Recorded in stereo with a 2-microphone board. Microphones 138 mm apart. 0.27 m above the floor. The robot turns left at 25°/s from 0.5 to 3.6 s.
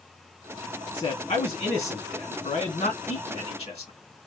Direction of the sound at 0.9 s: 125° left.